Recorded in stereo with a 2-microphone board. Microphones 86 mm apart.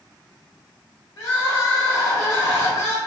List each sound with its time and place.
1.2 s crying: 40° left (ahead or behind), 1.3 m